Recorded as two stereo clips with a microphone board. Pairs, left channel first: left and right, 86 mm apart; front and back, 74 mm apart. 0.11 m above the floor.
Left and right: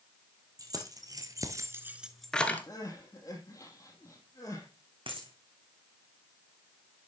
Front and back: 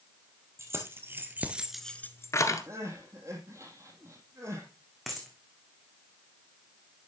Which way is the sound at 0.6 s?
130° right.